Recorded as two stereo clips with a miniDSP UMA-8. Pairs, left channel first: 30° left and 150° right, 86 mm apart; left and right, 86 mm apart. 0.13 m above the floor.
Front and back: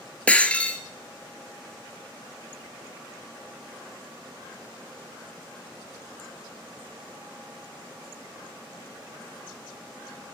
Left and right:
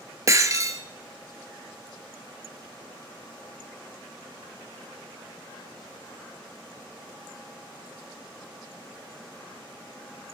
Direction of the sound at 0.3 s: 45° right.